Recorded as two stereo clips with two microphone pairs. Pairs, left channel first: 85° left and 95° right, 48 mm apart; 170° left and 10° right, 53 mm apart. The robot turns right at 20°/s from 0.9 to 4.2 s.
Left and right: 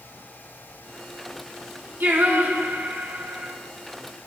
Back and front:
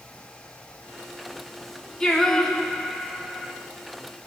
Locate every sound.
2.0 s singing: 115° right, 1.8 m; by 3.5 s 85° right, 1.8 m